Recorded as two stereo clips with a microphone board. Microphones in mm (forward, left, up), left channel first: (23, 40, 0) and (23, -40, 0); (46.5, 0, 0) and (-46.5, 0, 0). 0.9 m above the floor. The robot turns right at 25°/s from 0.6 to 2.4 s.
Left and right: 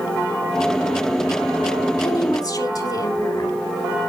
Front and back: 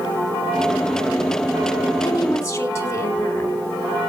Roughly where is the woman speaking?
Ahead left.